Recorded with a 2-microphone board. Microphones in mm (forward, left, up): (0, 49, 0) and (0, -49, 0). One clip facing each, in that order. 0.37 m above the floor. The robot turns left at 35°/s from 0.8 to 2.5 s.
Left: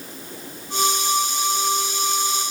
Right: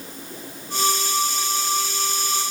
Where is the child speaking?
No child speaking in this recording.